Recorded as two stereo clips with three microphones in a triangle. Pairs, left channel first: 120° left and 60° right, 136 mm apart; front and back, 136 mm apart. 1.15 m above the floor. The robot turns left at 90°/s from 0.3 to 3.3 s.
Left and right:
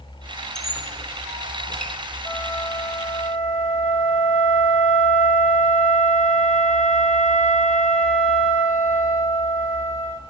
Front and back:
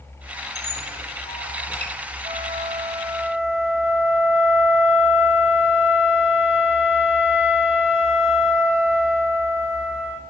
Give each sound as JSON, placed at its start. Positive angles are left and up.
{"t": 0.6, "sound": "a squeak", "azimuth_deg": 35, "distance_m": 2.0}
{"t": 2.2, "sound": "a flute", "azimuth_deg": -165, "distance_m": 2.0}